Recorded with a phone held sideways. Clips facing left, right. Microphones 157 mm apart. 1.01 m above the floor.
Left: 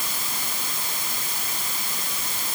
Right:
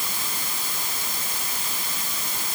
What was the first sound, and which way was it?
Only background noise.